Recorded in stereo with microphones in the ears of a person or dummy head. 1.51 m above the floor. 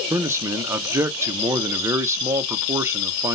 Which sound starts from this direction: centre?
A man speaking, at 0.1 s.